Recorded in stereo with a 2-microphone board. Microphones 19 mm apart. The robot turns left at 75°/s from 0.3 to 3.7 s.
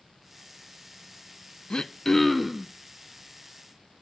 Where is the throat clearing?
50° left, 0.5 m; by 2.7 s 25° right, 0.5 m.